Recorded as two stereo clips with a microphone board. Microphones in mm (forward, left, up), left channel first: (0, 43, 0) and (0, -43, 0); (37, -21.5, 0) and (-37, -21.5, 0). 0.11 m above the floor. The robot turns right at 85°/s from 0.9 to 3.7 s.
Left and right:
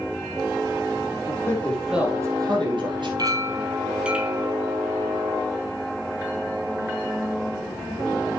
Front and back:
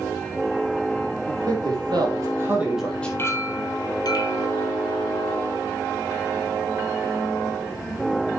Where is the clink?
55° right, 2.0 m; by 4.5 s 10° right, 2.0 m.